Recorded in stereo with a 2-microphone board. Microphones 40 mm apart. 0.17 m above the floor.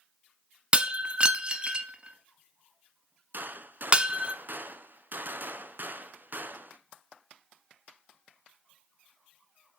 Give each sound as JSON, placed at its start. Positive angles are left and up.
{"t": 0.7, "sound": "breaking glass", "side_deg": -30, "distance_m": 0.8}
{"t": 3.3, "sound": "a gunshot", "side_deg": -55, "distance_m": 0.7}